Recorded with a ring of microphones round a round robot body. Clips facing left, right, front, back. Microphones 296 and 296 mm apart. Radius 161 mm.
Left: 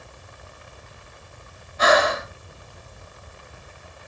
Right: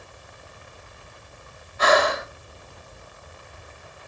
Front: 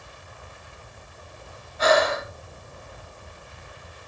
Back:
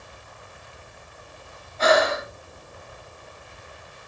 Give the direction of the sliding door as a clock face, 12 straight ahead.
I don't hear a sliding door.